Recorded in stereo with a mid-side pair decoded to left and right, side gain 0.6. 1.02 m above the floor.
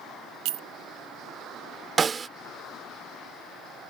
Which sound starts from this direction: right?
A clink, at 0.5 s.